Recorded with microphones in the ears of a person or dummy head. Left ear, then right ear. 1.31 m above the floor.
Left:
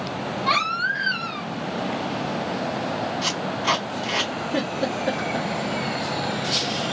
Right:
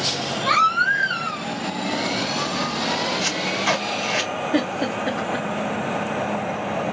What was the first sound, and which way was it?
A baby crying, 70° right (ahead or behind).